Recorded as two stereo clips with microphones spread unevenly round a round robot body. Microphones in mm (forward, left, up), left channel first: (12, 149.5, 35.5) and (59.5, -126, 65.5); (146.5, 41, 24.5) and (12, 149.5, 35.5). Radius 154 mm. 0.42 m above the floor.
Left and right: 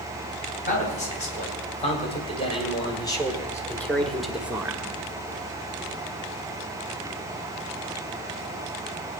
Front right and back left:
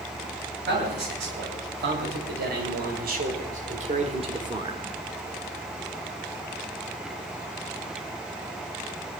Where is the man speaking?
160° left, 3.5 m; by 4.8 s 160° right, 1.3 m.